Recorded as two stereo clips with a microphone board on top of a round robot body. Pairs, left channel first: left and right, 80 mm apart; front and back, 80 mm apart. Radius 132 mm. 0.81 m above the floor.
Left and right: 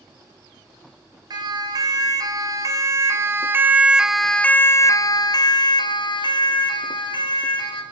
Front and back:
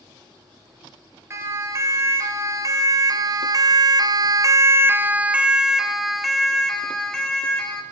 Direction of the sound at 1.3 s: 125° right.